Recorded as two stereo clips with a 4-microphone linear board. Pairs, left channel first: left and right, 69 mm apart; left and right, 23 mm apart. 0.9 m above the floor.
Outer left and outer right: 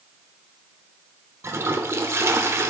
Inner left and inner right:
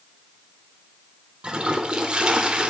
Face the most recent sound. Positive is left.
turn(degrees=-35)  # may be behind; listen again after turning